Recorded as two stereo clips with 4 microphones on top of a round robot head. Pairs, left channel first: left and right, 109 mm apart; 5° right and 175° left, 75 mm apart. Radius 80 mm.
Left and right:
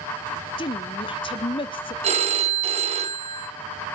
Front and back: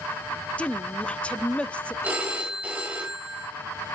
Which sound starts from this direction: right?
A phone ringing, at 2.0 s.